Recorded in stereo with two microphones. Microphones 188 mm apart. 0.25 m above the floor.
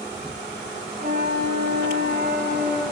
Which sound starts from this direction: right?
A flute, at 1.0 s.